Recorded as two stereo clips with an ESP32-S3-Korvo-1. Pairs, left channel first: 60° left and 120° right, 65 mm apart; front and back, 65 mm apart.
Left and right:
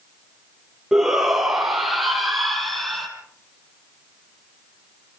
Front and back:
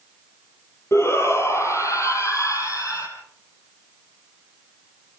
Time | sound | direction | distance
0.9 | a shout | 40° right | 4 m